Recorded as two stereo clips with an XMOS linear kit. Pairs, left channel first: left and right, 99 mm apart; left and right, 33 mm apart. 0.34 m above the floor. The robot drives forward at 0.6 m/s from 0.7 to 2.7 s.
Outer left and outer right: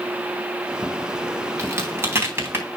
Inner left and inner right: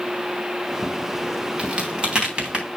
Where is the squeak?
No squeak in this recording.